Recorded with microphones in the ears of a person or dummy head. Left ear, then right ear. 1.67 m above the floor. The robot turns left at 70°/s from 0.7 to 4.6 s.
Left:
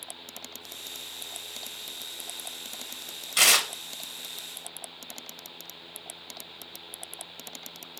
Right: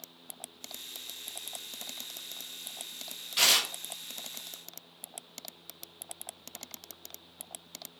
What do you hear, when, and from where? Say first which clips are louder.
3.4 s tearing paper: left 3 dB; 30° left (ahead or behind), 0.6 m; by 3.7 s 50° left (ahead or behind), 0.6 m